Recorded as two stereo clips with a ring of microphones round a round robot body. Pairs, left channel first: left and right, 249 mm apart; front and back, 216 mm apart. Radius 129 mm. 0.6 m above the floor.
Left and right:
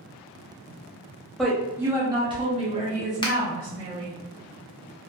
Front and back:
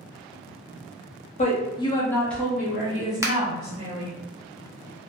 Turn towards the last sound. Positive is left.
turn(degrees=125)